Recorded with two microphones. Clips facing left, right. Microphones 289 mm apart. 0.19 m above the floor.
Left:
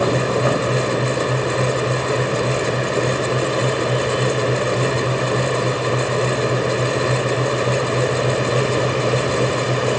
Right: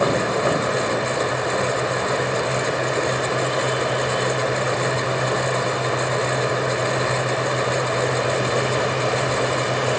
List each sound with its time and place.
Only background noise.